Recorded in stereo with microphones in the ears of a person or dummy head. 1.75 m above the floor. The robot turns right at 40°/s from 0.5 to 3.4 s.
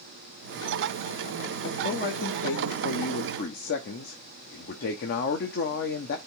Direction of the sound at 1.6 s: 45° left.